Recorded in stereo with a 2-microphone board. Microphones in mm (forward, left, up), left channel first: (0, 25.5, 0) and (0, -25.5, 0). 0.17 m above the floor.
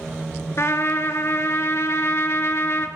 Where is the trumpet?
60° left (ahead or behind), 0.7 m.